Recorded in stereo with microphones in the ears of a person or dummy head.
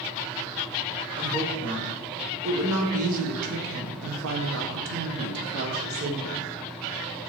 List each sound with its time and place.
1.2 s a woman speaking: 25° right (ahead or behind), 2.5 m; by 6.5 s 55° right (ahead or behind), 1.6 m